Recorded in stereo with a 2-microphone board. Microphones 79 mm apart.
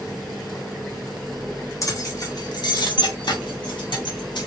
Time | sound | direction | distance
1.8 | keys jangling | 45° left (ahead or behind) | 1.3 m